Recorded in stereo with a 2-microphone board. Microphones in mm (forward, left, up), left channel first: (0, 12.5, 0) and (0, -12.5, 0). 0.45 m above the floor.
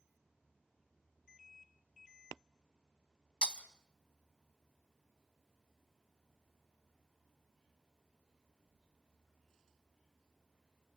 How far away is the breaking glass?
About 1.1 m.